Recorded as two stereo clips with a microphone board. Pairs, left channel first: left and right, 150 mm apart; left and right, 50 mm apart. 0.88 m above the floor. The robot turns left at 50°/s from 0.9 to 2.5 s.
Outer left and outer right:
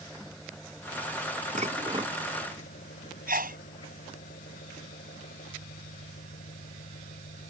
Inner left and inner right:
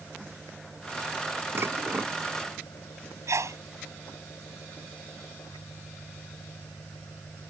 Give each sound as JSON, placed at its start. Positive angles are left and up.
{"t": 0.0, "sound": "an engine running", "azimuth_deg": 175}
{"t": 1.6, "sound": "dishes clattering", "azimuth_deg": -125}
{"t": 3.3, "sound": "a sneeze", "side_deg": -75}